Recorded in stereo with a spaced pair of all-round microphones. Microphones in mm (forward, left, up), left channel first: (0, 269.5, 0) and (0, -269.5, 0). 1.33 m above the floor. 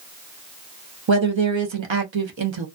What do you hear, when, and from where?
1.1 s a woman speaking: 55° right (ahead or behind), 0.7 m